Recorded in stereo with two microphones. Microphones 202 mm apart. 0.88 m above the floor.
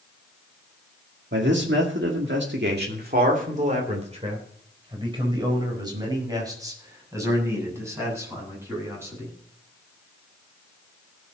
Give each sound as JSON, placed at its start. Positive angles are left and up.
{"t": 1.3, "sound": "a man speaking", "side_deg": -60, "distance_m": 2.0}